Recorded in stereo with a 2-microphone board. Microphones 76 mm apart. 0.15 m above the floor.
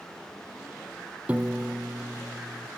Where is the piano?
20° right (ahead or behind), 1.2 m.